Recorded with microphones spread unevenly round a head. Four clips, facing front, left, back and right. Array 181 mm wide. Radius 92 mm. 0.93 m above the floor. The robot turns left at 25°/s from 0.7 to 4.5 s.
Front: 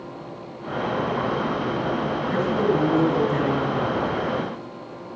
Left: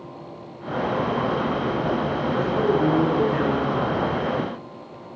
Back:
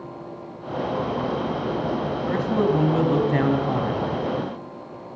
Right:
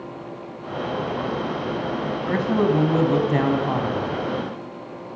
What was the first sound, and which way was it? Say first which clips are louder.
A man speaking: right 2 dB, even; 95° right.